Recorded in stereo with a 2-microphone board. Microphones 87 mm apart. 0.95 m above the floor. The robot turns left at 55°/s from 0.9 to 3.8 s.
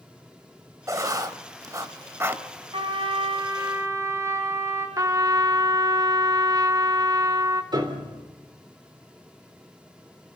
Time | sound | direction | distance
0.9 | writing | 40° right (ahead or behind) | 0.9 m
2.7 | a trumpet | 90° right | 4 m
5.0 | a trumpet | 45° right (ahead or behind) | 1.1 m
7.7 | a piano | 60° right (ahead or behind) | 3.5 m